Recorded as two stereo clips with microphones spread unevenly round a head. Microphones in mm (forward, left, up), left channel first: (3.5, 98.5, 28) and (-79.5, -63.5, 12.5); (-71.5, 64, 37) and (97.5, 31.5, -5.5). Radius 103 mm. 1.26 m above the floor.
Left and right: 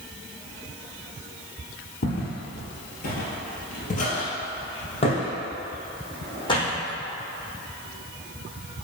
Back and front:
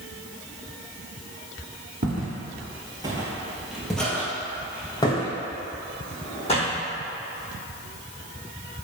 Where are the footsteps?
30° left, 1.9 m; by 6.8 s 125° left, 4 m.